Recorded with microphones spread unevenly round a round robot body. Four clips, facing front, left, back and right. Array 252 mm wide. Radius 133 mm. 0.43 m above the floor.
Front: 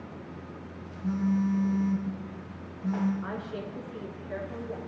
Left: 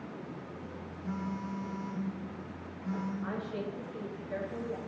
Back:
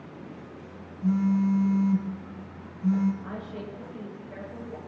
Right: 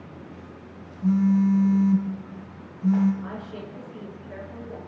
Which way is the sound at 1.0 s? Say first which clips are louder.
Right 18 dB, back 3 dB; 110° right.